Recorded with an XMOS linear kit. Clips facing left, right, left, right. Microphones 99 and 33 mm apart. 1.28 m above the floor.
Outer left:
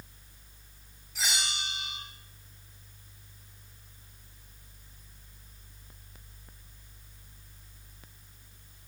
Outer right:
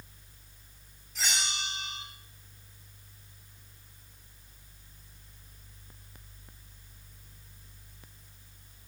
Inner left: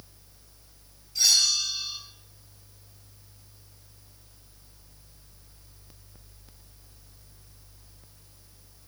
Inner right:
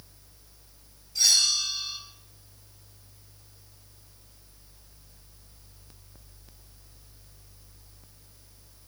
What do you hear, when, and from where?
1.1 s a bell: 5° left (ahead or behind), 4.5 m